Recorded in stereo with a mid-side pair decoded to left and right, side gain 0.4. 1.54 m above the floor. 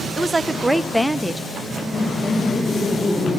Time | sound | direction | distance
0.2 | a woman speaking | 25° right | 1.0 m
1.5 | laughter | 40° left | 7.5 m